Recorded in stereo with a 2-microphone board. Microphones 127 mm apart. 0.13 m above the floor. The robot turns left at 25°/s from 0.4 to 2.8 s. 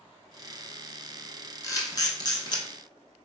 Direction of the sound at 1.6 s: 30° left (ahead or behind).